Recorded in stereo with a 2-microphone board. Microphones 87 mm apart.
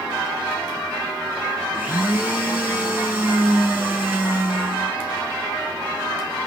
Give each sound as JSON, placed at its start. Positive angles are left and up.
{"t": 1.7, "sound": "a blender", "side_deg": -15, "distance_m": 1.2}